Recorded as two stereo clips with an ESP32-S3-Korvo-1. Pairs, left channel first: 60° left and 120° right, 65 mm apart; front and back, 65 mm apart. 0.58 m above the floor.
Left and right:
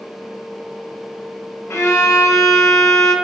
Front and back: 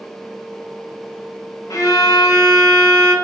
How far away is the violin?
About 0.5 m.